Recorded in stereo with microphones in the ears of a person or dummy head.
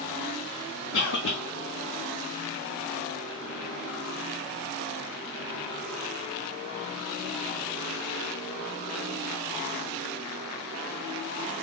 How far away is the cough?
About 0.7 m.